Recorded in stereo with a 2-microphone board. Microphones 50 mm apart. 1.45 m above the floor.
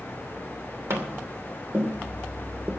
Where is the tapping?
55° right (ahead or behind), 2.5 m.